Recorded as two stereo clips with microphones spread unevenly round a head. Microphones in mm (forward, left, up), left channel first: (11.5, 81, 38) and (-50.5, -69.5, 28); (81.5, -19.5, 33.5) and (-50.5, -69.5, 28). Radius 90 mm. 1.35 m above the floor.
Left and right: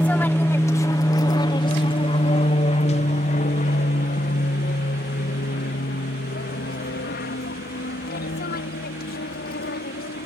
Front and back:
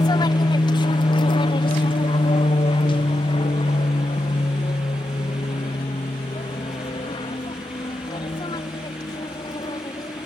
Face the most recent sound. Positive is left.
turn(degrees=90)